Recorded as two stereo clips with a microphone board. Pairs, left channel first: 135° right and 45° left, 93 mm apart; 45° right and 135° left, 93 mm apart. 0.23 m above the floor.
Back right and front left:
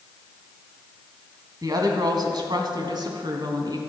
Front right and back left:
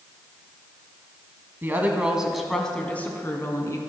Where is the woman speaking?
75° left, 1.4 m; by 3.8 s 10° left, 1.9 m.